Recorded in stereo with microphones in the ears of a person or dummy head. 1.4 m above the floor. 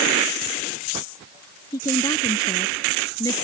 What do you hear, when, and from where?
1.7 s a woman speaking: 20° left (ahead or behind)